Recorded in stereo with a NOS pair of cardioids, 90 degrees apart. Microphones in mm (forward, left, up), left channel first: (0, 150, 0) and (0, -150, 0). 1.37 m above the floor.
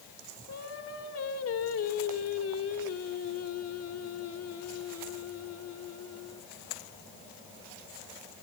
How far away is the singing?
About 3 m.